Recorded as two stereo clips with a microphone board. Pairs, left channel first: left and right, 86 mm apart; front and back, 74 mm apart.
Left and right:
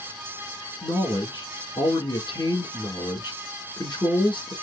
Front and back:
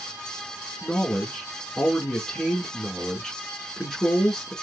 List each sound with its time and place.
0.8 s a man speaking: 80° left, 2.5 m